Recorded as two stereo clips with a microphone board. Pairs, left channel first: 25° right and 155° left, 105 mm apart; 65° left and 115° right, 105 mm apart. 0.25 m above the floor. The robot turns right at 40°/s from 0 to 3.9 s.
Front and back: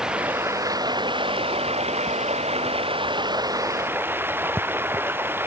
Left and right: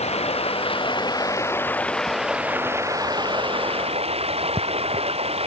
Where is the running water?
70° left; by 5.5 s 130° right.